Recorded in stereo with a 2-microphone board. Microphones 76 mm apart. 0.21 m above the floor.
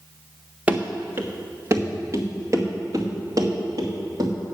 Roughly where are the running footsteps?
Right.